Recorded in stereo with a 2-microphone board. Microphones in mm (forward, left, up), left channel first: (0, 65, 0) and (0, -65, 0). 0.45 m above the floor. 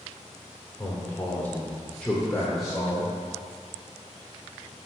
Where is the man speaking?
15° left (ahead or behind), 1.3 m; by 3.1 s 5° right (ahead or behind), 1.8 m.